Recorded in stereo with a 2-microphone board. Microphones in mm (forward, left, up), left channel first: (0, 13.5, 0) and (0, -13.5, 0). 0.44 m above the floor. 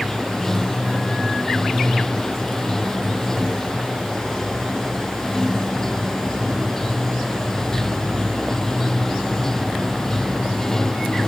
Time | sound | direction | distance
0.0 | running water | 15° left (ahead or behind) | ?